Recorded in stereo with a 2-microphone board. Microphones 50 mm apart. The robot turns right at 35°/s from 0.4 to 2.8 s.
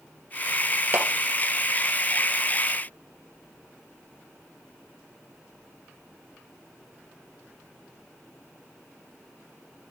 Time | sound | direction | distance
0.9 | a clap | 35° right (ahead or behind) | 1.5 m